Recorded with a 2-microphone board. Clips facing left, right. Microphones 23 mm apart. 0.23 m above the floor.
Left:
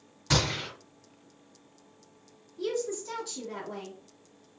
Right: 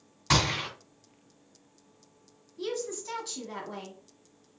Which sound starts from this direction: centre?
A woman speaking, at 2.6 s.